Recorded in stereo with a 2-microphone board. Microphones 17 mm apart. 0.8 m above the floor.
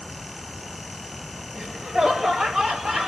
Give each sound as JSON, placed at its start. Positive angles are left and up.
{"t": 1.6, "sound": "laughter", "side_deg": -65, "distance_m": 1.7}